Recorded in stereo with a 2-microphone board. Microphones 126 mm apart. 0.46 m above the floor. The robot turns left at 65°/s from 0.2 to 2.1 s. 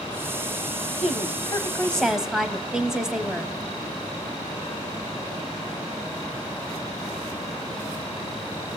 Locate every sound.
1.0 s a woman speaking: 65° left, 2.5 m; by 3.5 s 5° right, 2.5 m